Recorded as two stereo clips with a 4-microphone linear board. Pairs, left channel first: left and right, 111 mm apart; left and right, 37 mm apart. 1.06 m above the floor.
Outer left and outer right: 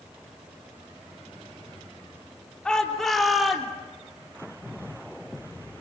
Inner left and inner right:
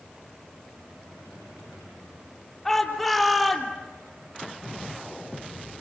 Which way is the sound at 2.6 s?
5° left (ahead or behind).